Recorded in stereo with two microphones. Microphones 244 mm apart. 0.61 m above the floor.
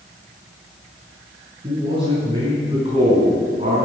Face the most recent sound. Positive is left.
turn(degrees=-35)  # may be behind; listen again after turning